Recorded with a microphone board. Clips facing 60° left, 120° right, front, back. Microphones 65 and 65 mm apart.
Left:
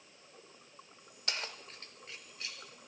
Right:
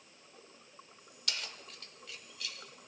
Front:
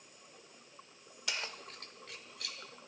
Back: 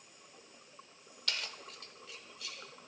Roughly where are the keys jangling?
Ahead left.